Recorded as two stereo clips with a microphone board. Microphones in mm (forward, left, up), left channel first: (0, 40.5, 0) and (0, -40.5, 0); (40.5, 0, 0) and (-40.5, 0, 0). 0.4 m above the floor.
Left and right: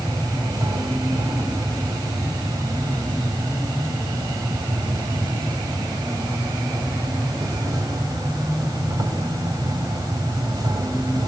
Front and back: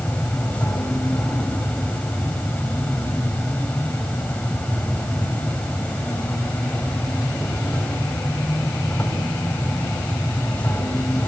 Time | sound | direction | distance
0.0 | an insect | 70° right | 3.5 m